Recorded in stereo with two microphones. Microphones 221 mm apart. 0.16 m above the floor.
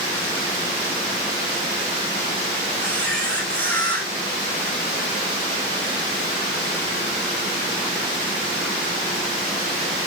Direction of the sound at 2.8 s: 5° left (ahead or behind).